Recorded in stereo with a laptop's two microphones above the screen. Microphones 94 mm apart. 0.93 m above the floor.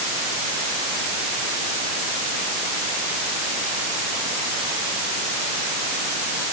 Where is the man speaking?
I don't hear a man speaking.